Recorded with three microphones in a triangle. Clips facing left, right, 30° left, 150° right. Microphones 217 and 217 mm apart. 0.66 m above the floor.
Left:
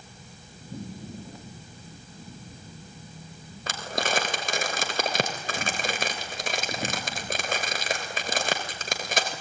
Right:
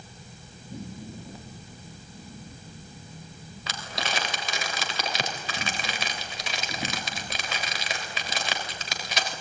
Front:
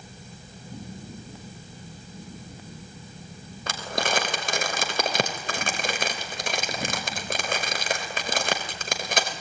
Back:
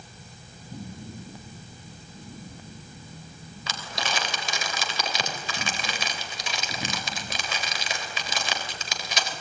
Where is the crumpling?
55° left, 3 m.